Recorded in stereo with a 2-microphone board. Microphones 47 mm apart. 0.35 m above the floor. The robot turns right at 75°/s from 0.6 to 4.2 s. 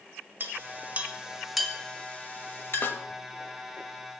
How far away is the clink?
About 0.9 m.